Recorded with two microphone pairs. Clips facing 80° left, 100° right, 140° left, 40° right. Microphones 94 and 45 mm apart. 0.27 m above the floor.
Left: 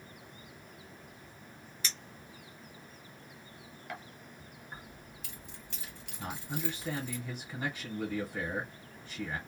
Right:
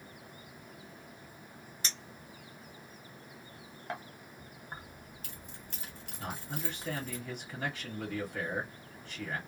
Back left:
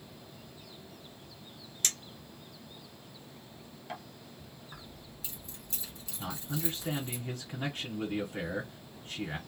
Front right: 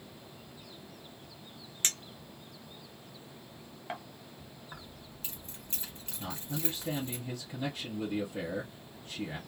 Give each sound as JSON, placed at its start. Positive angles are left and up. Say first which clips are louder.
{"t": 1.8, "sound": "a clink", "louder": "even, front right 1 dB", "azimuth_deg": -75, "distance_m": 0.7}
{"t": 4.7, "sound": "keys jangling", "louder": "right 2 dB, front right 2 dB", "azimuth_deg": -70, "distance_m": 1.2}
{"t": 6.2, "sound": "a man speaking", "louder": "left 2 dB, back left 1 dB", "azimuth_deg": 150, "distance_m": 1.4}